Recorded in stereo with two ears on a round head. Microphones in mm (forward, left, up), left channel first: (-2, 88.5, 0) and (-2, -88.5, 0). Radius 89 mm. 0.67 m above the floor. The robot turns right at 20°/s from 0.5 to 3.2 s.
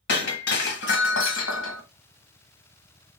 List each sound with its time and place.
0.1 s breaking glass: 55° left (ahead or behind), 1.5 m; by 1.8 s 80° left, 1.5 m